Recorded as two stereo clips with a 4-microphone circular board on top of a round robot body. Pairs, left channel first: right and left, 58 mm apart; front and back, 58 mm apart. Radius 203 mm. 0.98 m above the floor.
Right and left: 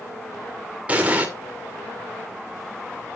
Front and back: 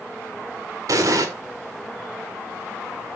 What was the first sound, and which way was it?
An explosion, 155° left.